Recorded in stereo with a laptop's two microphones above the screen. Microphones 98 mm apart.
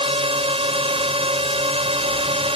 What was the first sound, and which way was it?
A drone, 70° right (ahead or behind).